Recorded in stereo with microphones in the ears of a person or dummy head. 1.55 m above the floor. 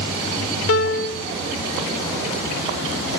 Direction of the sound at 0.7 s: 80° left.